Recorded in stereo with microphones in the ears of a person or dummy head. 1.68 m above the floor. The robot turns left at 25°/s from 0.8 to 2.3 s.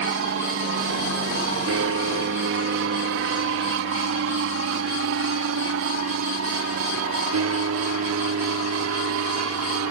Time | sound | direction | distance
0.0 | an aircraft | 60° right (ahead or behind) | ?